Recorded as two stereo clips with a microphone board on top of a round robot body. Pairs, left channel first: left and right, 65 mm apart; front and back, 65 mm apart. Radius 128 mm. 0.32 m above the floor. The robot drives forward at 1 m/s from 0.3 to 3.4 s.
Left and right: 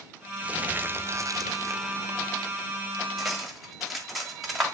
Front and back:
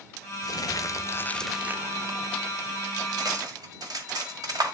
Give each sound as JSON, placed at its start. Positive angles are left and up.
{"t": 0.4, "sound": "crumpling", "azimuth_deg": -20, "distance_m": 1.2}
{"t": 3.2, "sound": "cutlery clinking", "azimuth_deg": -175, "distance_m": 1.3}